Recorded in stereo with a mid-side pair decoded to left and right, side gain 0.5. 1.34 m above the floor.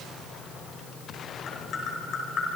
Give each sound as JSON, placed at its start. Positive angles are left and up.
{"t": 1.5, "sound": "tapping", "azimuth_deg": 55, "distance_m": 5.5}